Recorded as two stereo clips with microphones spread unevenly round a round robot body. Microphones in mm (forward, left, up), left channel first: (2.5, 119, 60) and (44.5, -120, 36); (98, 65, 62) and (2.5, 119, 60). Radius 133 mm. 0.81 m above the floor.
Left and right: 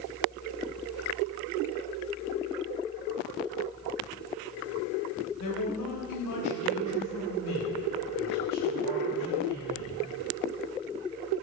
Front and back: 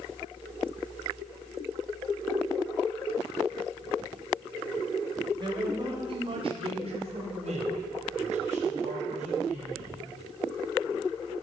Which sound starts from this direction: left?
A man speaking, at 5.4 s.